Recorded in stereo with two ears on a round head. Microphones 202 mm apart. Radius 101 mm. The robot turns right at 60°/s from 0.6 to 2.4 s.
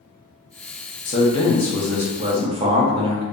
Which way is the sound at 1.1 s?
135° left.